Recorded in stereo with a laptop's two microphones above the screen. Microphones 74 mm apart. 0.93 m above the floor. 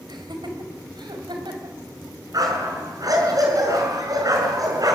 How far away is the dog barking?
About 5.5 m.